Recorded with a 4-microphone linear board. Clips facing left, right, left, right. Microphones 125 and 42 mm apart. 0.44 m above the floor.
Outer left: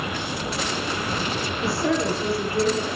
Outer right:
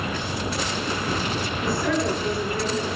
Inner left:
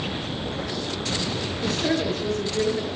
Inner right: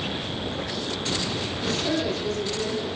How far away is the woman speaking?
About 7.5 m.